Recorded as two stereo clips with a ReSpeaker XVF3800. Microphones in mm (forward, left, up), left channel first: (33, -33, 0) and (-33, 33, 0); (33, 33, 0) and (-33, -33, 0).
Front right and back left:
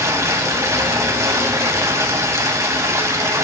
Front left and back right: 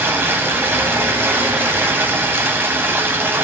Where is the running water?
170° left, 1.4 m.